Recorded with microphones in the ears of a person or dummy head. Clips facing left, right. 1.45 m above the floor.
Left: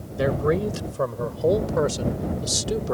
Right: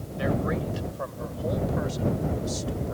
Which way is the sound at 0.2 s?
50° left (ahead or behind).